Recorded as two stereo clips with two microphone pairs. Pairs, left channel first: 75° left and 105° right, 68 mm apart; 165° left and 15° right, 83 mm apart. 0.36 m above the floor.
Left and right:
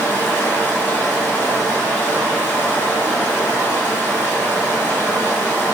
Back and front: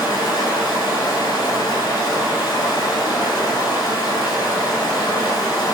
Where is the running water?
135° left, 1.0 m.